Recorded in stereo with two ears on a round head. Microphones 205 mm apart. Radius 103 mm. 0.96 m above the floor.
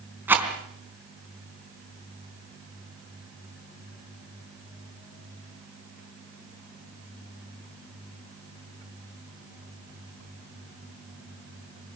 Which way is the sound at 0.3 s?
10° right (ahead or behind).